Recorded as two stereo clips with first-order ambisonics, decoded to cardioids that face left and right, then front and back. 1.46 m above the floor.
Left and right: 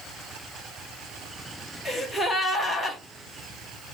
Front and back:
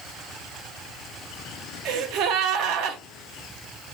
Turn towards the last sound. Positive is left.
turn(degrees=170)